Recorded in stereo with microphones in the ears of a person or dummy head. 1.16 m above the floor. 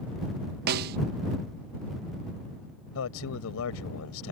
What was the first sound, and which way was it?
A snare drum, 50° right (ahead or behind).